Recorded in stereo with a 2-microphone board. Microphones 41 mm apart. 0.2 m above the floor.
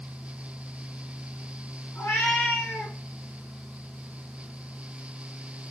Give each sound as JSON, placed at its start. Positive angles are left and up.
{"t": 1.9, "sound": "a cat meowing", "side_deg": 70, "distance_m": 5.0}